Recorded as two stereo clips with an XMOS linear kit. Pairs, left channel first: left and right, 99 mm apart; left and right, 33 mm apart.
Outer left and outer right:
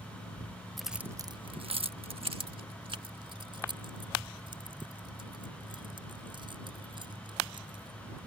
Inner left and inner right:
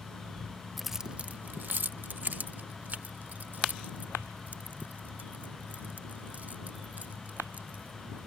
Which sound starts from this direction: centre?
Keys jangling, at 0.8 s.